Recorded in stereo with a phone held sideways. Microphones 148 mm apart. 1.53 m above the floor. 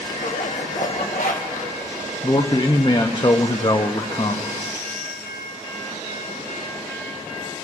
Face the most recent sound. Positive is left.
turn(degrees=35)  # may be behind; listen again after turning